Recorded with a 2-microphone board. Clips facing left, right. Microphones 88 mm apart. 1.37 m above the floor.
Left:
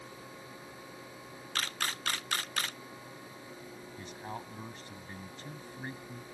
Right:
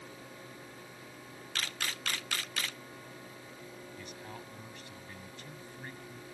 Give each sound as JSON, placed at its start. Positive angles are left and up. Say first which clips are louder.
{"t": 1.6, "sound": "a camera shutter", "louder": "left 3 dB", "side_deg": 40}
{"t": 4.0, "sound": "a man speaking", "louder": "left 7 dB", "side_deg": 35}